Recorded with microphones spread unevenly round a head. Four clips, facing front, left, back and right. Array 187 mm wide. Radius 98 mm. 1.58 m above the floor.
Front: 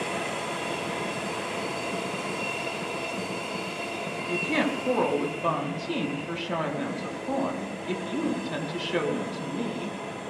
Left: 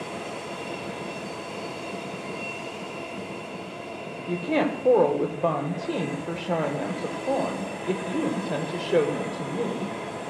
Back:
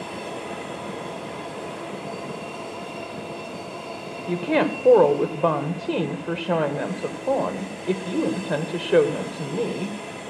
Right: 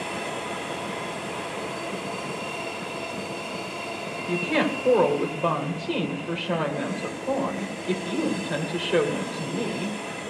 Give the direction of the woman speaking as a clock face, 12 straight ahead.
6 o'clock.